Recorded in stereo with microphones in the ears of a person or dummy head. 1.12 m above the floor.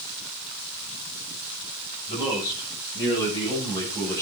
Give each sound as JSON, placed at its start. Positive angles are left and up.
{"t": 2.1, "sound": "a man speaking", "side_deg": 30, "distance_m": 8.0}